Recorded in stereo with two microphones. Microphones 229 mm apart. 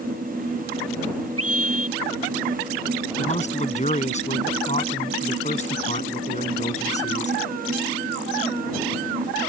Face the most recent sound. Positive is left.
turn(degrees=30)  # may be behind; listen again after turning